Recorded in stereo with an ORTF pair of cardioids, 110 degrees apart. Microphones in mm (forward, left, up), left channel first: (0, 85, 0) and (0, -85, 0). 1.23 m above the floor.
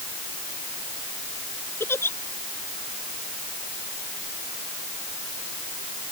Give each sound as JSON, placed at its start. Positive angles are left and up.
{"t": 1.8, "sound": "a giggle", "azimuth_deg": 15}